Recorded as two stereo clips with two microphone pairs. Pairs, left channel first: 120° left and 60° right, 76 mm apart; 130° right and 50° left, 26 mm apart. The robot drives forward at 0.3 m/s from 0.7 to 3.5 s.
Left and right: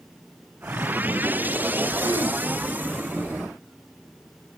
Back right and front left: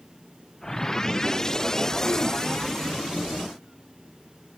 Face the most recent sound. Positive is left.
turn(degrees=-115)